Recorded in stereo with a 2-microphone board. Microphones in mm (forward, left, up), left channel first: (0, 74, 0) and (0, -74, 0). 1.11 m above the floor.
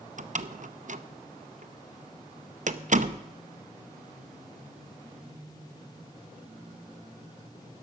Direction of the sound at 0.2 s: 55° right (ahead or behind).